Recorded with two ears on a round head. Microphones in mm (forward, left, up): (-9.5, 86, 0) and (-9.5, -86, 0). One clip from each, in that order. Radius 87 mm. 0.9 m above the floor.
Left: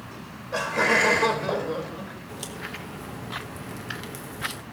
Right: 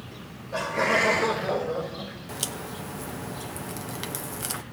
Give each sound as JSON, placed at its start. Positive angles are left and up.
{"t": 0.1, "sound": "laughter", "side_deg": 50, "distance_m": 4.0}
{"t": 2.3, "sound": "a crack", "side_deg": -25, "distance_m": 0.8}